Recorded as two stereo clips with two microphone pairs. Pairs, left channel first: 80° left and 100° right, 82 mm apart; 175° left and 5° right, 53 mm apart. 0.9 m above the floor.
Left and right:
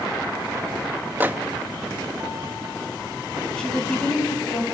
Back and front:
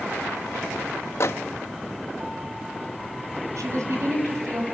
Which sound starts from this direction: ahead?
A woman speaking, at 3.6 s.